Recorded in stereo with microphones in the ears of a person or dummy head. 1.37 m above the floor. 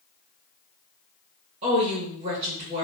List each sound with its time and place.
1.6 s a woman speaking: 35° right (ahead or behind), 1.9 m